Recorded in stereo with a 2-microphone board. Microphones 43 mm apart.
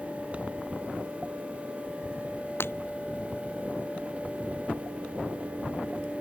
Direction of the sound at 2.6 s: 60° left (ahead or behind).